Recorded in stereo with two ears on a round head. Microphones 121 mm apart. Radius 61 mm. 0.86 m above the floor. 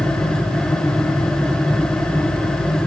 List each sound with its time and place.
Only background noise.